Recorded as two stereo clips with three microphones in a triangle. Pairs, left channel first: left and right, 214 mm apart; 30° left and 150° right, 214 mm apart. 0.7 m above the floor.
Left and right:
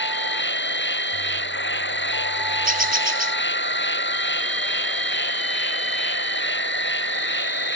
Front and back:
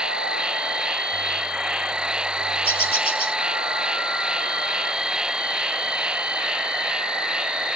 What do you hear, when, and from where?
0.0 s an insect: 125° left
2.6 s a bird: 140° right